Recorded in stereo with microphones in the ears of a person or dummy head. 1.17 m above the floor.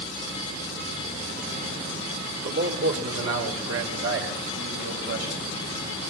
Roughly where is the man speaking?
Right.